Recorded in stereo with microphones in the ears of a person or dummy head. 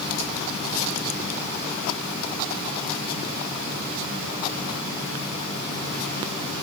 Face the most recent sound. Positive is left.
No sound to turn to.